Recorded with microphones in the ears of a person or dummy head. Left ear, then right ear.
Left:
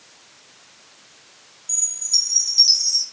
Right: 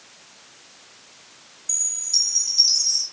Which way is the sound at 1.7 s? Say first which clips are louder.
Left 2 dB; 5° left (ahead or behind).